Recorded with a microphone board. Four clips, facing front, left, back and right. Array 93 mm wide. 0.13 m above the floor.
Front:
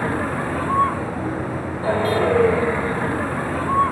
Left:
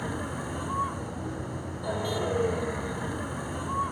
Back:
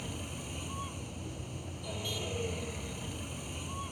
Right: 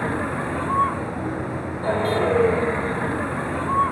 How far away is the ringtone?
I don't hear a ringtone.